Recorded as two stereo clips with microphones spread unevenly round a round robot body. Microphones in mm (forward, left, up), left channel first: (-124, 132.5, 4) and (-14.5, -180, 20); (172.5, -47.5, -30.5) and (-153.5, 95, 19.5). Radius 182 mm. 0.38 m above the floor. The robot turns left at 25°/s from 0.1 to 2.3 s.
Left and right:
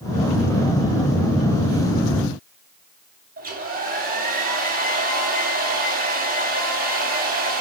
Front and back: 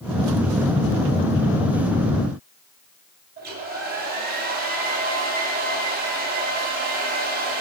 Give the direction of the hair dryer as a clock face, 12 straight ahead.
4 o'clock.